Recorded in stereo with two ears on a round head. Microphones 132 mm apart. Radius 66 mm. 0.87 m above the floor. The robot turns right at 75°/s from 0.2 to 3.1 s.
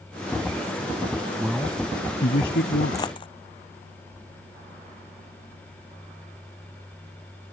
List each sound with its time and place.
1.4 s a man speaking: 10° right; by 3.0 s 110° left
2.9 s a dropped coin: 20° left (ahead or behind); by 3.3 s 30° left (ahead or behind)